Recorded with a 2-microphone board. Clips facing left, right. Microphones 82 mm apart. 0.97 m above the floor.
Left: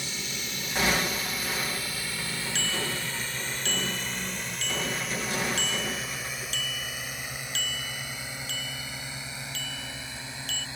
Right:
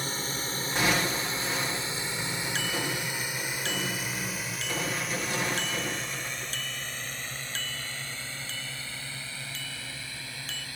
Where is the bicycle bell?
40° right (ahead or behind).